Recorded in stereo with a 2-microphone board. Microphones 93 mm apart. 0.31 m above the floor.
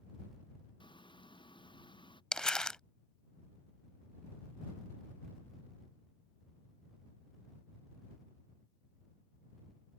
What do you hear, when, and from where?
0.8 s frying: 60° left (ahead or behind)
2.3 s crumpling: 10° left (ahead or behind)